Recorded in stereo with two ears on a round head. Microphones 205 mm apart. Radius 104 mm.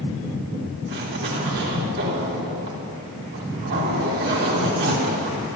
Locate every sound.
0.9 s a zipper: 55° right (ahead or behind), 3.5 m